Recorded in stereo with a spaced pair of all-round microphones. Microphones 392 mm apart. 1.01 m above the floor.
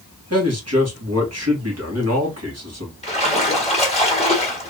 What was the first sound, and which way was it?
A man speaking, 40° right (ahead or behind).